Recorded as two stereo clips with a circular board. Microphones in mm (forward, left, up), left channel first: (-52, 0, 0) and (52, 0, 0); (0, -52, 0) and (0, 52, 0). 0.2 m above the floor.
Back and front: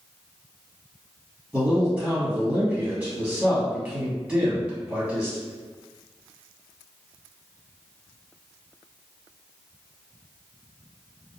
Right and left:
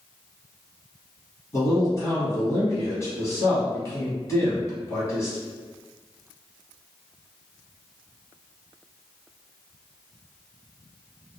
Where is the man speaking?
75° right, 1.8 m.